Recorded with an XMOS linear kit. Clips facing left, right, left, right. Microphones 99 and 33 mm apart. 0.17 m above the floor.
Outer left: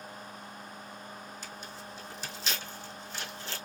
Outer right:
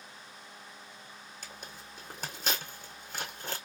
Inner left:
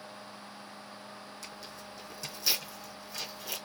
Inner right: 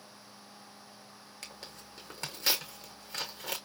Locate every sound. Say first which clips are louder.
1.4 s tearing paper: outer left 4 dB, inner left 3 dB; 55° right (ahead or behind), 2.5 m